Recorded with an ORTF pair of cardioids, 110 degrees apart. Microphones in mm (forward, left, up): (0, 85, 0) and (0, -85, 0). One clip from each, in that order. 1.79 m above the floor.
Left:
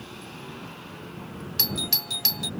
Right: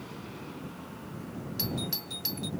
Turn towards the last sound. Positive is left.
turn(degrees=50)